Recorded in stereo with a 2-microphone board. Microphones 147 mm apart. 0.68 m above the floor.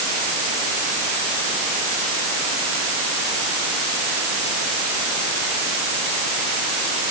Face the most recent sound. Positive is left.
No sound to turn to.